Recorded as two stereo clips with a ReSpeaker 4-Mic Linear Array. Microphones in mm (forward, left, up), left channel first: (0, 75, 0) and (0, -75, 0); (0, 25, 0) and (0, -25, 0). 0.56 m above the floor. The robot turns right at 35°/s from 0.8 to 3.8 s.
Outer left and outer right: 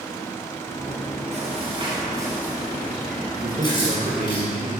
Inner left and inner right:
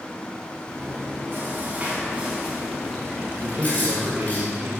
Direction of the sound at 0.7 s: 70° right.